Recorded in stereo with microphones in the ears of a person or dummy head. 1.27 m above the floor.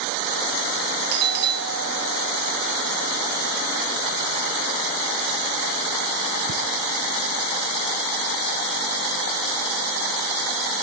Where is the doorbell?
50° right (ahead or behind), 0.7 m.